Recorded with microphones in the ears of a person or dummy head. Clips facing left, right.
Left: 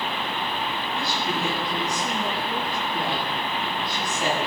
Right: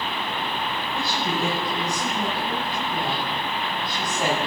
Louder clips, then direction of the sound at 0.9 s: Right 2 dB; 40° right (ahead or behind).